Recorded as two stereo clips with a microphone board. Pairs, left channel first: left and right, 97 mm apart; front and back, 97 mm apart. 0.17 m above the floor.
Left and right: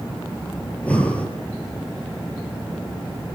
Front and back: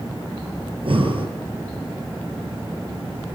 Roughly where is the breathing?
Behind.